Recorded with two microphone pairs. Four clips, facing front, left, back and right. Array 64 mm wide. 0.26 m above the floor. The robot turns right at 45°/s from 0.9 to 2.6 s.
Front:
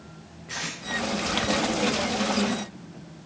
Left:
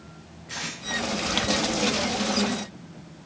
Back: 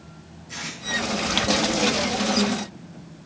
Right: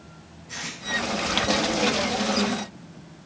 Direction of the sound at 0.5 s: 30° left.